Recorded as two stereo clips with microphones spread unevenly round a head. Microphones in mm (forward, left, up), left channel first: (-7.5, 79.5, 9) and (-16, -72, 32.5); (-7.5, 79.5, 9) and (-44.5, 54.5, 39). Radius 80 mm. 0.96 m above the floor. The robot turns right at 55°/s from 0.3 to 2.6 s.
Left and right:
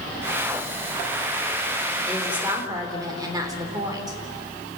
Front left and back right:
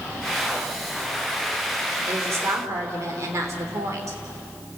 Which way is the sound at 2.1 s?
170° left.